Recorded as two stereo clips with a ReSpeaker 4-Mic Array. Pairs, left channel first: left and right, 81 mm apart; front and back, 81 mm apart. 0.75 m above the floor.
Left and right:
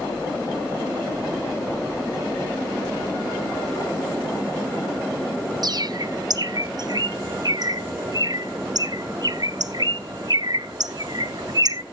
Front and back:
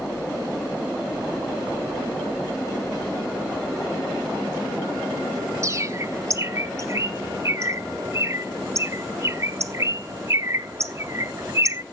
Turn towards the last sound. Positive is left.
turn(degrees=-130)